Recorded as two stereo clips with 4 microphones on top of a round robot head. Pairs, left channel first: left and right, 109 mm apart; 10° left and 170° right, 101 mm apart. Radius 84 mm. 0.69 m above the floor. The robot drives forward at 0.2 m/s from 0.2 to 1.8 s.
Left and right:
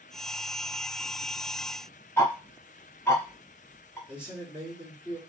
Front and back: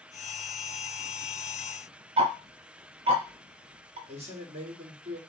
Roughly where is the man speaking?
Behind.